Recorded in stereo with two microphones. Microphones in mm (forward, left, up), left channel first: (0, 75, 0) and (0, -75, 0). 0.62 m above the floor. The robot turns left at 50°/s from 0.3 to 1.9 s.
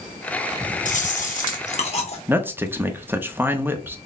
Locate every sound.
0.8 s chewing: 110° left, 0.9 m; by 2.2 s 55° left, 0.9 m
2.3 s a man speaking: 15° right (ahead or behind), 0.6 m